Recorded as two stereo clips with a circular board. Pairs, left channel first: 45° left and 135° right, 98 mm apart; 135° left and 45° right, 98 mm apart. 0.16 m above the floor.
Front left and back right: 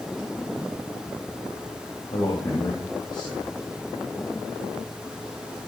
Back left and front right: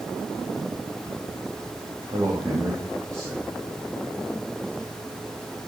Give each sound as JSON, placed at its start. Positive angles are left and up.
{"t": 2.1, "sound": "a man speaking", "azimuth_deg": 10, "distance_m": 4.5}